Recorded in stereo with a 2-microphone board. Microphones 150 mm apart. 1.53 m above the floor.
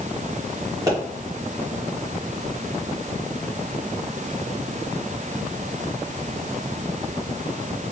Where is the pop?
20° right (ahead or behind), 2 m.